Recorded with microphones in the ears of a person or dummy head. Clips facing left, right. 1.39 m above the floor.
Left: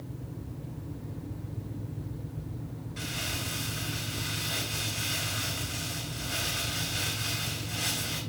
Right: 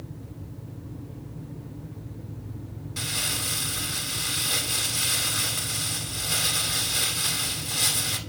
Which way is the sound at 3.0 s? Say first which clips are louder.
Right 2 dB; 50° right (ahead or behind).